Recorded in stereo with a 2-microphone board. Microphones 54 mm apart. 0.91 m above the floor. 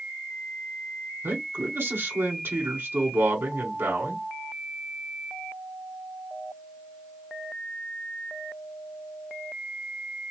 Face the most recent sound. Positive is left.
turn(degrees=-45)  # may be behind; listen again after turning